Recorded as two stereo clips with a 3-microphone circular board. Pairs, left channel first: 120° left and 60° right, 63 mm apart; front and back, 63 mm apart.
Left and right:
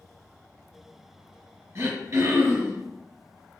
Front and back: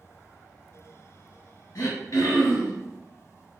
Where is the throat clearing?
25° right, 1.8 m.